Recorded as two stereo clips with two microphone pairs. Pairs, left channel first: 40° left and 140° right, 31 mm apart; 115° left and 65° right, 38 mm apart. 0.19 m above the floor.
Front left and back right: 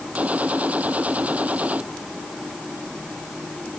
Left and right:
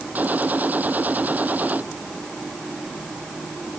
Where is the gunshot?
105° right.